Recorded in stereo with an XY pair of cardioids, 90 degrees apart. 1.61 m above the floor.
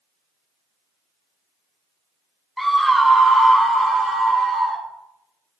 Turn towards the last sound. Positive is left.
turn(degrees=-75)